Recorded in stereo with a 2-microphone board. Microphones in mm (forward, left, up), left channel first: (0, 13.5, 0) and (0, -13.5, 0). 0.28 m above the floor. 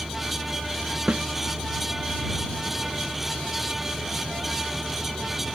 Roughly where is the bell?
I don't hear a bell.